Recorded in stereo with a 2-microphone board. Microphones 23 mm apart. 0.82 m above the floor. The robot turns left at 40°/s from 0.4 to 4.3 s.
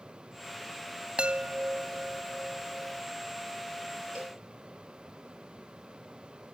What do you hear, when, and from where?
1.2 s a chime: 45° right; by 3.0 s 120° right
4.2 s a cowbell: 75° right (ahead or behind); by 4.4 s 80° right